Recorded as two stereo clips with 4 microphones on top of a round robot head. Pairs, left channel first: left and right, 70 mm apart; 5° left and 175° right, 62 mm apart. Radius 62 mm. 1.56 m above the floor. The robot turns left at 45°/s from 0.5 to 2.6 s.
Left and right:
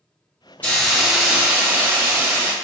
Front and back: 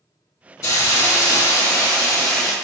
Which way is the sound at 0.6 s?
25° left.